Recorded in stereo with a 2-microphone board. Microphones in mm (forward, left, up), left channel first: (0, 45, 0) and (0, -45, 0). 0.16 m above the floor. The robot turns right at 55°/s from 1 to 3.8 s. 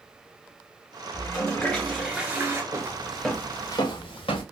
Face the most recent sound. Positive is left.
turn(degrees=80)